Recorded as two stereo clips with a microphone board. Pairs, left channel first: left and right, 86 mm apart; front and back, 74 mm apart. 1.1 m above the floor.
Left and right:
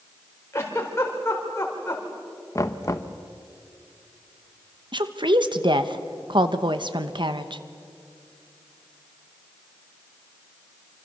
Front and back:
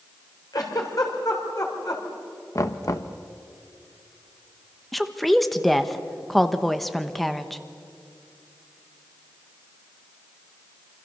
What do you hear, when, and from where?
0.5 s a giggle: 30° left, 4 m
2.5 s knocking: 40° left, 1.0 m
4.9 s a woman speaking: 85° right, 1.2 m